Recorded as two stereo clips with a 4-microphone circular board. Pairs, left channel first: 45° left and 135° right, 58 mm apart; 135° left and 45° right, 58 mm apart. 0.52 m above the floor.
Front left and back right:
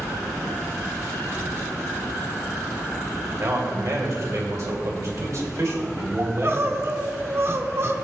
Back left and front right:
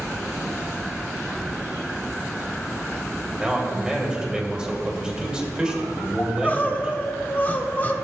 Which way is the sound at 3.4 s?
115° right.